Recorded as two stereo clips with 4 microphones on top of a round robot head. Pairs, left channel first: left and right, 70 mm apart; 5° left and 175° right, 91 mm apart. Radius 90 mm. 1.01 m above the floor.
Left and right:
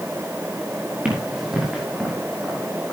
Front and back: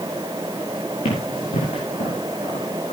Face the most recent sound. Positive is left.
turn(degrees=5)